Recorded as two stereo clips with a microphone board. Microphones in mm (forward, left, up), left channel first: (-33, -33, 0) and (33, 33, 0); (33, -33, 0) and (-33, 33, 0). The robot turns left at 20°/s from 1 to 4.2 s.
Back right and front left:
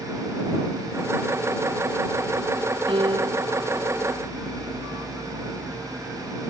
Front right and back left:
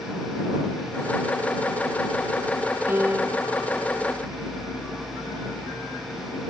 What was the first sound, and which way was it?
A piano, 70° left.